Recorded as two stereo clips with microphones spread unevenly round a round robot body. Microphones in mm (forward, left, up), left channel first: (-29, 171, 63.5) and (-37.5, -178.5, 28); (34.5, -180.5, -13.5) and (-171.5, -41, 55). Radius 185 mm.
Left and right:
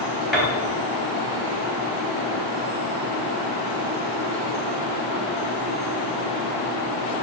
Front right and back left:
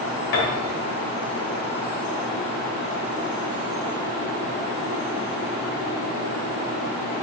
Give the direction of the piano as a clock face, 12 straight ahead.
12 o'clock.